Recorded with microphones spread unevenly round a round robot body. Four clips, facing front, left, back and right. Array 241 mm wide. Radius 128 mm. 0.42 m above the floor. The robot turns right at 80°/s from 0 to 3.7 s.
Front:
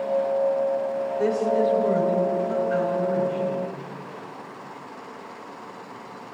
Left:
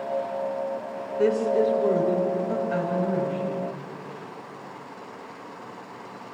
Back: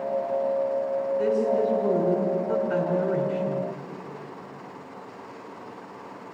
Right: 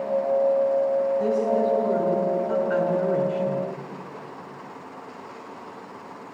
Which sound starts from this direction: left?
A woman speaking, at 1.2 s.